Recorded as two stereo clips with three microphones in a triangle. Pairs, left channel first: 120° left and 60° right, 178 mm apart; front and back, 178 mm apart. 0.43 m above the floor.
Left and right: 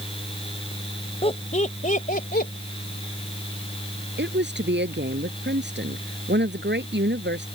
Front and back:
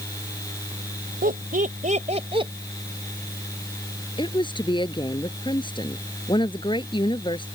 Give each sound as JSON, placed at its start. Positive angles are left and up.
{"t": 1.2, "sound": "laughter", "azimuth_deg": 170}
{"t": 4.2, "sound": "a woman speaking", "azimuth_deg": -65}